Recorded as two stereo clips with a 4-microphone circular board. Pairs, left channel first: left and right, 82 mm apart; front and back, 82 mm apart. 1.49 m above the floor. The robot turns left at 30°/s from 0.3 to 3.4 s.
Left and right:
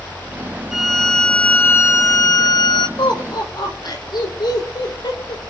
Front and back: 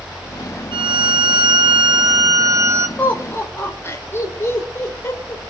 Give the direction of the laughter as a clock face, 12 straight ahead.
10 o'clock.